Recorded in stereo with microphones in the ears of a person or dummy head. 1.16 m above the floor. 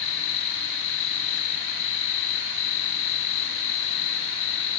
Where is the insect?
65° left (ahead or behind).